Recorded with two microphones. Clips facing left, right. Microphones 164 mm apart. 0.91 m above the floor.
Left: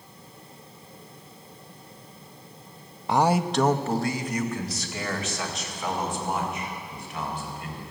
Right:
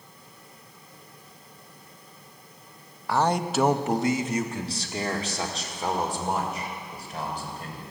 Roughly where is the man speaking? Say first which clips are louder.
Left 2 dB; left.